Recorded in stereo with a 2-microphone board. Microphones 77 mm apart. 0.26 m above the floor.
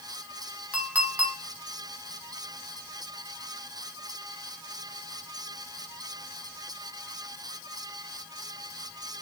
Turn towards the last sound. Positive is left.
turn(degrees=-20)  # may be behind; listen again after turning